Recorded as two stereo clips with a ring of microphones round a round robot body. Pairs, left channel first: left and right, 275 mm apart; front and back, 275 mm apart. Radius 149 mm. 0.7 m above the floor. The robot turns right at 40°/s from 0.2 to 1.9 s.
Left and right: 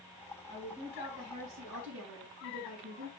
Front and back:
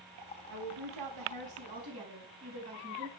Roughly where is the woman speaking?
Behind.